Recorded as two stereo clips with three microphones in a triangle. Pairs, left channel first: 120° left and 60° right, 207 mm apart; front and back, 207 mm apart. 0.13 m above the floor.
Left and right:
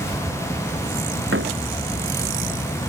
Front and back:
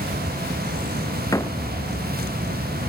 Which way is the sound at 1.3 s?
75° right.